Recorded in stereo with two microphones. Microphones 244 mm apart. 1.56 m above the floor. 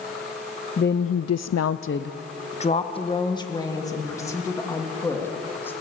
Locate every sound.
0.8 s a woman speaking: 40° left (ahead or behind), 0.7 m; by 5.7 s 10° left (ahead or behind), 3.5 m